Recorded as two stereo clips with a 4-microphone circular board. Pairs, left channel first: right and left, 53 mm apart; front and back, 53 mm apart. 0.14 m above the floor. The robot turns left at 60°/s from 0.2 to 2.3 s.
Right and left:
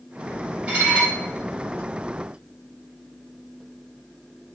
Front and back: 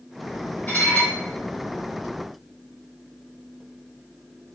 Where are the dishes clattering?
40° left, 1.5 m; by 1.1 s 10° left, 1.5 m.